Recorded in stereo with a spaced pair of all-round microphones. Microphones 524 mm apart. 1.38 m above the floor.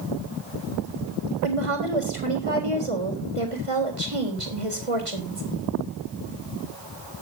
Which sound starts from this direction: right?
A woman speaking, at 1.4 s.